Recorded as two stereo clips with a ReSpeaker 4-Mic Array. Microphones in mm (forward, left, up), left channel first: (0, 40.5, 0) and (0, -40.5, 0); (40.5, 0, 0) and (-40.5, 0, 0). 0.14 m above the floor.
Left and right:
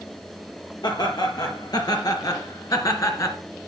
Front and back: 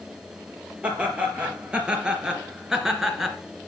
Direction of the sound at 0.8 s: 105° left.